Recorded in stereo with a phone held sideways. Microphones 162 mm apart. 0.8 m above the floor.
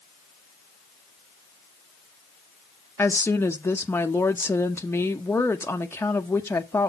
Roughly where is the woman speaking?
Centre.